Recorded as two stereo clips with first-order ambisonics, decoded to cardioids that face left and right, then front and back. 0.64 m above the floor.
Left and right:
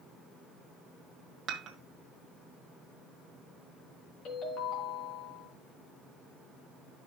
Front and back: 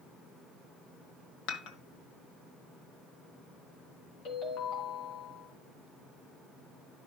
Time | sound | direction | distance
1.5 | dishes clattering | 30° right | 1.7 m
4.2 | a ringtone | 45° left | 3 m